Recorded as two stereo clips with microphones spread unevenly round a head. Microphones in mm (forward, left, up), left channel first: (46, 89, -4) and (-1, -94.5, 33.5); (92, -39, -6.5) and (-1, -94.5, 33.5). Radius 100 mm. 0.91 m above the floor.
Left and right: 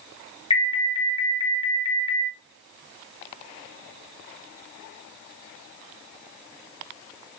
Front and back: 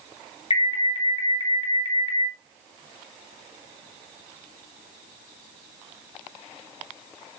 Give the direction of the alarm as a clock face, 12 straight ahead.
11 o'clock.